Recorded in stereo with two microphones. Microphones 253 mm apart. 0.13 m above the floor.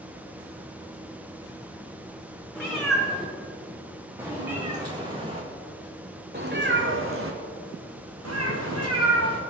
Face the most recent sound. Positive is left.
turn(degrees=-70)  # may be behind; listen again after turning